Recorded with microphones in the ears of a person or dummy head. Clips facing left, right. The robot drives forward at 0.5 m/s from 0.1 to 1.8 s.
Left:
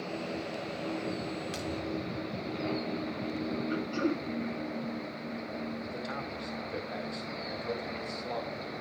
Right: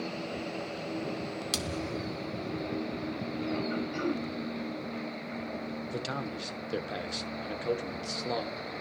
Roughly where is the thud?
Right.